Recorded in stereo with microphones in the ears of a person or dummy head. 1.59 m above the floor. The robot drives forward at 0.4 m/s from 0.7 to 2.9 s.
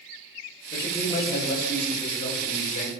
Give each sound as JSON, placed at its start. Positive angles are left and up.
{"t": 0.7, "sound": "a man speaking", "side_deg": 45, "distance_m": 6.0}